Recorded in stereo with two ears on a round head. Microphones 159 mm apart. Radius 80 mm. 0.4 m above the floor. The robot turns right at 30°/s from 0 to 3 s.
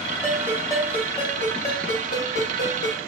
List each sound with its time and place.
0.2 s a ringtone: 5° left, 1.1 m; by 3.0 s 90° left, 1.1 m